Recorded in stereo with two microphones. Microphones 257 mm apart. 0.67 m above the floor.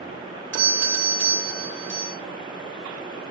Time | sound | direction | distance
0.5 | a doorbell | 50° right (ahead or behind) | 2.5 m